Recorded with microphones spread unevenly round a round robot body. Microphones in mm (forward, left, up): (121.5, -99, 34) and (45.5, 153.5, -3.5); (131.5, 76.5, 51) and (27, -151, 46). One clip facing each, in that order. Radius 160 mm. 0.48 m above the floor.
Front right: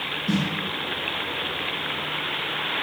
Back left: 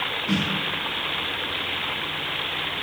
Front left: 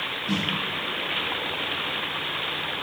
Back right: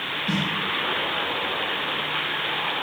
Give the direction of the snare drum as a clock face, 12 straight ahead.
3 o'clock.